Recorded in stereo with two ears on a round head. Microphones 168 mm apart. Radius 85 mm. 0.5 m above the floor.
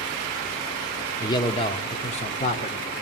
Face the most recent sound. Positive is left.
turn(degrees=40)  # may be behind; listen again after turning